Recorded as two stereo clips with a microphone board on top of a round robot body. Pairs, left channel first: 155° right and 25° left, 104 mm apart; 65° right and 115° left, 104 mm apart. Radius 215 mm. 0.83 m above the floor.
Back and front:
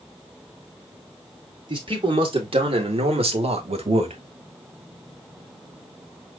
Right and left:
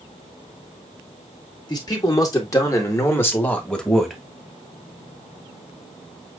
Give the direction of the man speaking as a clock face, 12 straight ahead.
1 o'clock.